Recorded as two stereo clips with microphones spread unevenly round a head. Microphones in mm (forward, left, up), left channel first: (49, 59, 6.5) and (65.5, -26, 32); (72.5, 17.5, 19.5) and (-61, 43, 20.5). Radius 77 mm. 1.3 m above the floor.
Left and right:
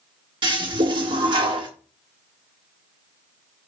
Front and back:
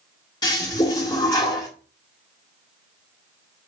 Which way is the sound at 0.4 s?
75° right.